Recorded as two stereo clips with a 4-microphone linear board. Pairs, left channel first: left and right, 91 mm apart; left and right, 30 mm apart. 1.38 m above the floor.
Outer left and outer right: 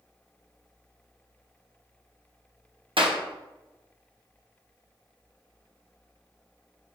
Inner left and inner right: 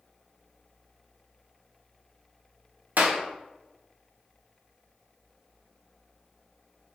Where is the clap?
75° right (ahead or behind), 1.0 m.